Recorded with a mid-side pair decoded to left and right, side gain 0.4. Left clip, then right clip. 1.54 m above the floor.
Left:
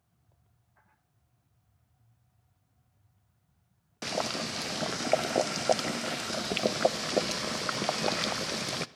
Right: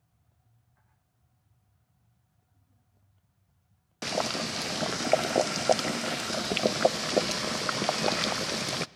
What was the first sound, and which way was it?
Boiling, 15° right.